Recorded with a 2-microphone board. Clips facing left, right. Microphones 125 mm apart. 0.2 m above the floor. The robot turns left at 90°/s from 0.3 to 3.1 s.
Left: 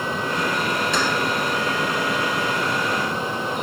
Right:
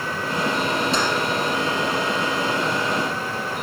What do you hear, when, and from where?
0.9 s keys jangling: 35° right (ahead or behind), 2.5 m; by 1.0 s 25° right (ahead or behind), 2.5 m